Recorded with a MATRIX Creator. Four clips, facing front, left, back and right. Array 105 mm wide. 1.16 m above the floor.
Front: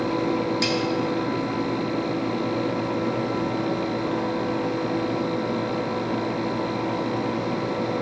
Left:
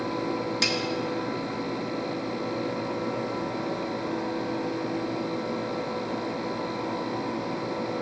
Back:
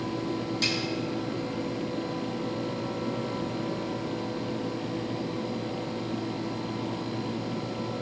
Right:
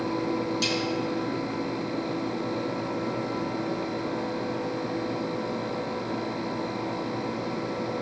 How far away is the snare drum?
About 1.2 m.